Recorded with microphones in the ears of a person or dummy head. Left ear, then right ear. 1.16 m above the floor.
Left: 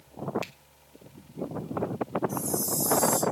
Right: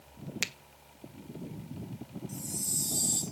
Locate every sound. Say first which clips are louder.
0.4 s a finger snap: right 8 dB; 60° right (ahead or behind), 0.9 m
2.3 s a chime: left 6 dB; 20° right (ahead or behind), 0.6 m